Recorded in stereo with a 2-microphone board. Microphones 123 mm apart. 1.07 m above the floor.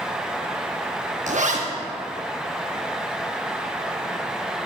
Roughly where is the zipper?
Right.